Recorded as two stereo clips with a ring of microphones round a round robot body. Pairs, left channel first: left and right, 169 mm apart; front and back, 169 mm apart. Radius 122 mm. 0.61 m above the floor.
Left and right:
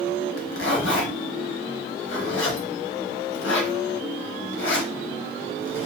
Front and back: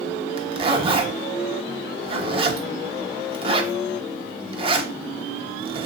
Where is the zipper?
120° left, 0.8 m.